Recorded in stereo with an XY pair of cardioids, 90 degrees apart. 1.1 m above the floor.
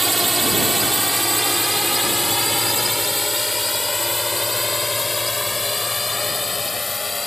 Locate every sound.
0.0 s a drone: 20° right; by 7.3 s 25° left